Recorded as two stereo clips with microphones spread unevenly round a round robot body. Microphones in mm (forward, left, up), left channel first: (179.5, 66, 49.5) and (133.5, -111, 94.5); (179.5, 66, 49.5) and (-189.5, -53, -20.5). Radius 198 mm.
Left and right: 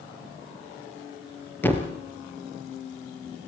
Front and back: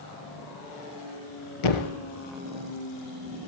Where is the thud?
5° right, 3 m.